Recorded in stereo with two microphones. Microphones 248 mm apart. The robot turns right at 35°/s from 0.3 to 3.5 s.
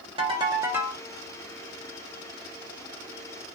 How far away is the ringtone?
About 0.7 m.